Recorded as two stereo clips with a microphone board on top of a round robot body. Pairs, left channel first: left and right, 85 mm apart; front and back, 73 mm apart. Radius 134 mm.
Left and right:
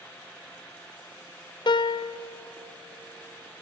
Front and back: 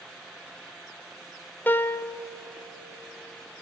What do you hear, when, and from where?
1.7 s a piano: 65° left, 0.5 m